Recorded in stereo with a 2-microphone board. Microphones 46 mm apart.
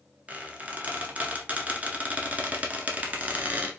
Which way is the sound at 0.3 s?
30° right (ahead or behind).